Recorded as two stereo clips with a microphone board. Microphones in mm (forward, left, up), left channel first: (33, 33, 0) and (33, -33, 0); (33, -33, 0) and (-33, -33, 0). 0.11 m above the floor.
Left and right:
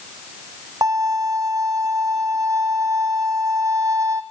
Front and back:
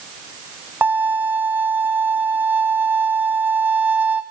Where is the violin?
115° right, 1.0 m.